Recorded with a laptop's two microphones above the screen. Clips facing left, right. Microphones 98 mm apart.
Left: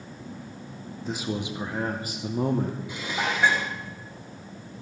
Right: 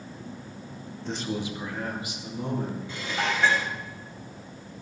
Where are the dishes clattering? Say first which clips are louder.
Even; 15° left (ahead or behind), 1.9 m.